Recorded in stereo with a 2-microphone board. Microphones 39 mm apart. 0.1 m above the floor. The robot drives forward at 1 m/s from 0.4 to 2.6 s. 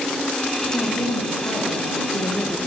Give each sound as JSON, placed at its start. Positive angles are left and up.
{"t": 0.7, "sound": "a woman speaking", "side_deg": 75, "distance_m": 9.5}